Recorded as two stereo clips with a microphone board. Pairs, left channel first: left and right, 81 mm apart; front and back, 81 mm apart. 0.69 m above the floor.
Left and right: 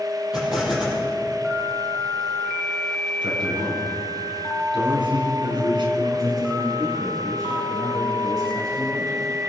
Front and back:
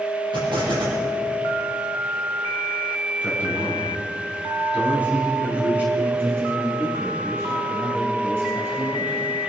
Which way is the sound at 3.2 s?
110° right.